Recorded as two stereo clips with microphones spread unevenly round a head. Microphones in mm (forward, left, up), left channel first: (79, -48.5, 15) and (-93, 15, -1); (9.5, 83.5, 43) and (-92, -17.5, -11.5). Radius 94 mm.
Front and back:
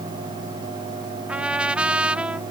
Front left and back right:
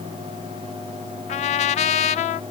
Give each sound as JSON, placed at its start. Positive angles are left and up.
{"t": 1.3, "sound": "a trumpet", "azimuth_deg": 75}